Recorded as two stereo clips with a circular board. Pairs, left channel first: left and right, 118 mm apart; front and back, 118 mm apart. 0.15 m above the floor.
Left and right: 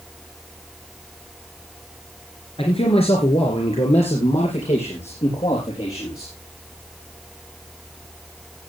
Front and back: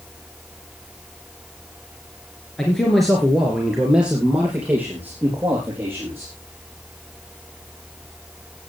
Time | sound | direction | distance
2.6 | a man speaking | 80° left | 2.5 m